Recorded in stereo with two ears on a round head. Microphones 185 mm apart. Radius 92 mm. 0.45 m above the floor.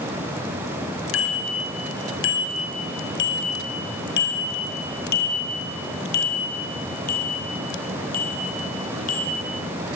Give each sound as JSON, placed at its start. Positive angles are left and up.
{"t": 1.1, "sound": "a bicycle bell", "side_deg": 65, "distance_m": 6.0}